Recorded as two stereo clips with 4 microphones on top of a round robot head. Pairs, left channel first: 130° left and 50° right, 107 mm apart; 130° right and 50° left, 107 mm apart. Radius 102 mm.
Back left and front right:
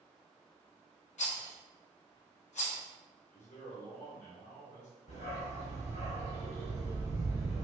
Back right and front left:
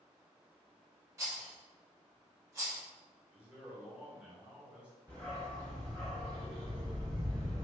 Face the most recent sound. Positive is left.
turn(degrees=155)